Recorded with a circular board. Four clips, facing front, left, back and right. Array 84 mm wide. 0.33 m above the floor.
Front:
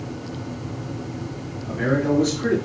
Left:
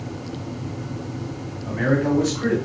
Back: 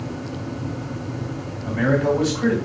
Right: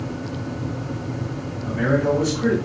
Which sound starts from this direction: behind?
A man speaking, at 1.6 s.